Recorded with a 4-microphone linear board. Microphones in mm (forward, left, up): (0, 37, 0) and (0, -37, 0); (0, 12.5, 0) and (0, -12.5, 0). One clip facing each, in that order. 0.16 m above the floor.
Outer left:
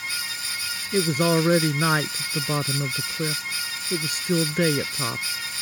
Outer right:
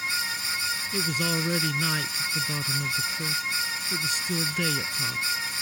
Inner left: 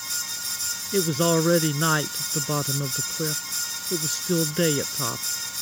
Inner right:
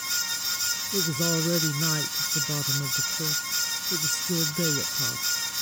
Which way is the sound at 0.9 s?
50° left (ahead or behind).